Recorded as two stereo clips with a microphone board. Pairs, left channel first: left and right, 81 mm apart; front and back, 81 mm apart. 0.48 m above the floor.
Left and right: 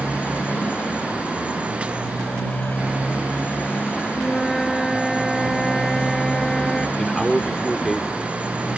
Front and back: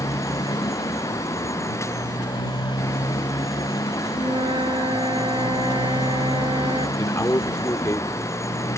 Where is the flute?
175° left.